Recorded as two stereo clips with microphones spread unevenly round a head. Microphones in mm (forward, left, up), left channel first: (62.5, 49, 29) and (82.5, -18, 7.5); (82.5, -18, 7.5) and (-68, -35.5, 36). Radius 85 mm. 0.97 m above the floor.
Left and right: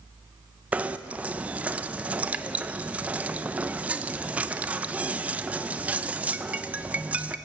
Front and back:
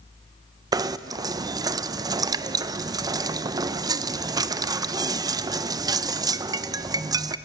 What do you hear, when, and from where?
0.7 s knocking: 105° right, 0.6 m